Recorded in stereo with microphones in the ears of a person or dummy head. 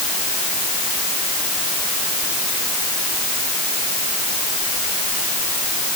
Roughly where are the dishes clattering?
No dishes clattering in this recording.